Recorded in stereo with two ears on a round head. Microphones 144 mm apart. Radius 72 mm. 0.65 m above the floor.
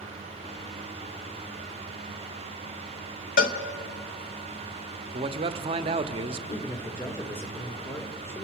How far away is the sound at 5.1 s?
About 0.9 m.